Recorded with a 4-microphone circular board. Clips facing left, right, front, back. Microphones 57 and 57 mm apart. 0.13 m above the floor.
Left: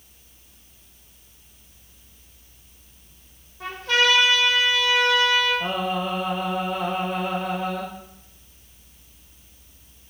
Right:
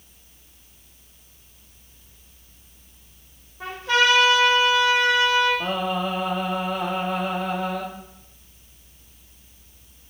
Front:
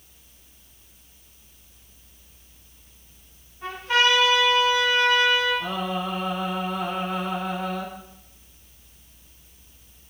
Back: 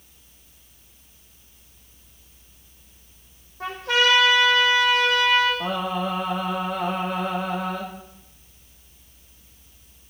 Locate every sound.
3.6 s a trumpet: 165° right, 4 m
5.6 s singing: 140° right, 5.5 m